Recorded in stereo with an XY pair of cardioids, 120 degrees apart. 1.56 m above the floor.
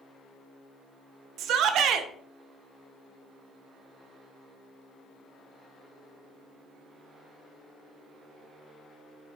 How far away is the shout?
About 0.9 m.